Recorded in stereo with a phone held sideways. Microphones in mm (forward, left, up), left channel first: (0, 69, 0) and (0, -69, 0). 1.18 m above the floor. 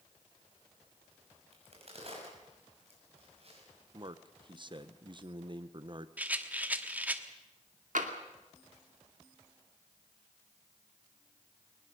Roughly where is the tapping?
Right.